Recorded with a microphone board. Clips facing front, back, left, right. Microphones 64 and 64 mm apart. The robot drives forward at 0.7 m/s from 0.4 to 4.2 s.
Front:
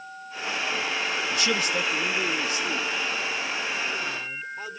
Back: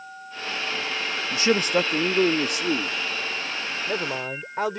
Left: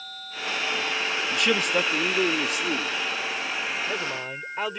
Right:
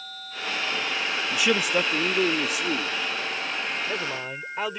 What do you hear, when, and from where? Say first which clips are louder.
1.3 s a man speaking: back 7 dB, right 1 dB; 175° right; by 4.8 s straight behind